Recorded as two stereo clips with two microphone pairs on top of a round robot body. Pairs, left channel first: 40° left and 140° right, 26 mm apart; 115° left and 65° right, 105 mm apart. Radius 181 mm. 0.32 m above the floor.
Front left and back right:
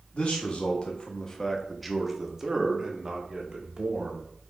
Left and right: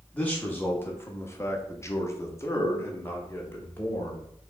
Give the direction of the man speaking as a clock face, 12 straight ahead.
11 o'clock.